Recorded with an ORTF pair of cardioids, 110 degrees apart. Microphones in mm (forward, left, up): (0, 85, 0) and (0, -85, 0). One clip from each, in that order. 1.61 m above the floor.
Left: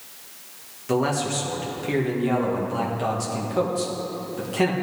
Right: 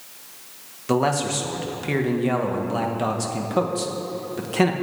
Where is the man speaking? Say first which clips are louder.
Right 2 dB; 25° right, 1.9 m.